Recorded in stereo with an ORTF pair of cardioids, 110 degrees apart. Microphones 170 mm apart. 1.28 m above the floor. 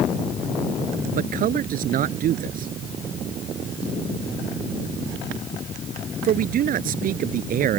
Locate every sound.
1.2 s a man speaking: 60° right